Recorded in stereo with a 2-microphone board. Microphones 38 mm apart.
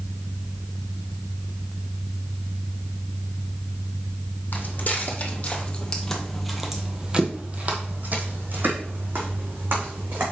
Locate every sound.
4.5 s footsteps: 55° left (ahead or behind), 2.5 m; by 10.2 s 70° right (ahead or behind), 3.5 m